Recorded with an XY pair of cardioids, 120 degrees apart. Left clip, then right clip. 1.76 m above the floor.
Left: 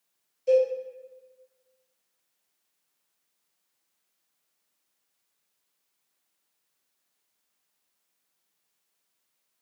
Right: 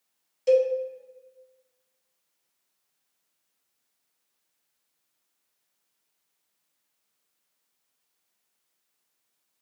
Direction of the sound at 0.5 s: 65° right.